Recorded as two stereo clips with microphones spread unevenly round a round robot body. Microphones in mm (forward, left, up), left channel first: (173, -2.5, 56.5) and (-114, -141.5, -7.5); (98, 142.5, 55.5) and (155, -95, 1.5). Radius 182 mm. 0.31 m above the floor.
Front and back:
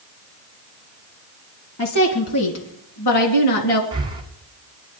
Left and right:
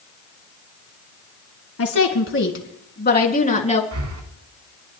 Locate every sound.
1.8 s a woman speaking: 75° left, 3.5 m; by 3.8 s 40° left, 3.5 m
3.9 s breathing: 85° right, 2 m